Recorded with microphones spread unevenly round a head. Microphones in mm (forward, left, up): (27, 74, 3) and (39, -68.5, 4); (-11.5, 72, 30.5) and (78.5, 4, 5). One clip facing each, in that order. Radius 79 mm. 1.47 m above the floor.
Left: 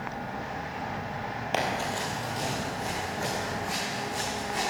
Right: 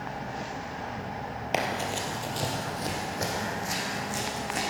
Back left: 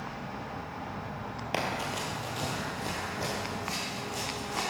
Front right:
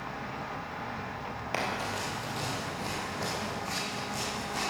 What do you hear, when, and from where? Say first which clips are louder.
1.5 s running footsteps: even, back left 1 dB; 160° right, 1.9 m; by 4.6 s 130° right, 5.5 m